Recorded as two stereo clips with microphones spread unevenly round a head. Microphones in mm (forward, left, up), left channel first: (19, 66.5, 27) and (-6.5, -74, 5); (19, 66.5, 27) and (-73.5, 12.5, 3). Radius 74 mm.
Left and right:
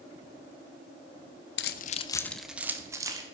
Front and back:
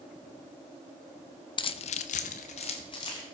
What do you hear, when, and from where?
1.6 s keys jangling: 70° left, 0.7 m; by 3.2 s 35° right, 1.7 m